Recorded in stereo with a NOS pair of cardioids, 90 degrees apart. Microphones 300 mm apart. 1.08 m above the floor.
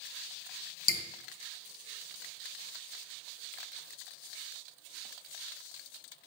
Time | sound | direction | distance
0.9 | dripping | 30° left | 0.6 m